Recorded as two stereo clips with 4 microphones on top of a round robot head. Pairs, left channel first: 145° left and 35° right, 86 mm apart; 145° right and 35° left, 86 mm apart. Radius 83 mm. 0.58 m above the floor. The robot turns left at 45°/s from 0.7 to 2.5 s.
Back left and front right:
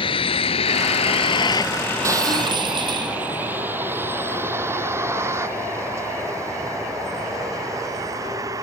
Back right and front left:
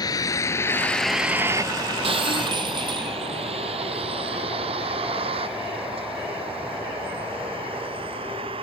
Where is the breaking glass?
20° left; by 3.2 s straight ahead.